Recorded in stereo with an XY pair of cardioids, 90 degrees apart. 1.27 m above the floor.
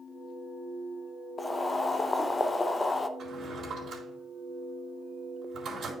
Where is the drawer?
60° right, 4 m.